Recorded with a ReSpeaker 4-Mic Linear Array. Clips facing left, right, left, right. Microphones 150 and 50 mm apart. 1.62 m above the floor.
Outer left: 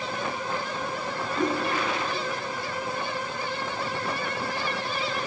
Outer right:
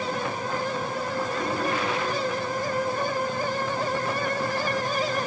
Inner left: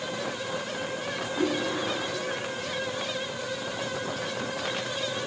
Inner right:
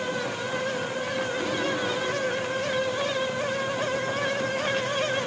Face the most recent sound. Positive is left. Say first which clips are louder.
# outer left 2 dB, inner left 1 dB
turn(degrees=60)  # may be behind; listen again after turning